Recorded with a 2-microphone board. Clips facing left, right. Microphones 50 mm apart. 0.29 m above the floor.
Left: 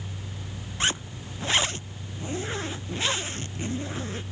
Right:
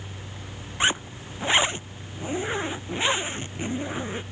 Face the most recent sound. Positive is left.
turn(degrees=-20)  # may be behind; listen again after turning